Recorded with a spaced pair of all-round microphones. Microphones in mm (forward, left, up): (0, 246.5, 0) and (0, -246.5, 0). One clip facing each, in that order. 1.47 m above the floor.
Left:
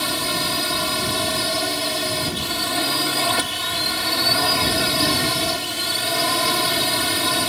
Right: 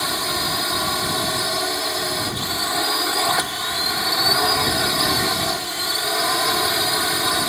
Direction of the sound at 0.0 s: 50° left (ahead or behind).